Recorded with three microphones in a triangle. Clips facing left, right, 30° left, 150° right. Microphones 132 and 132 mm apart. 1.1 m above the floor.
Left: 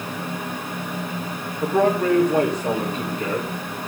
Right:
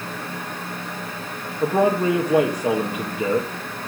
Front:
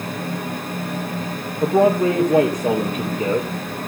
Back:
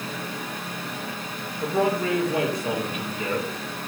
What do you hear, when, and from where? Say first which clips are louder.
1.6 s a man speaking: even, front 8 dB; 15° right, 1.5 m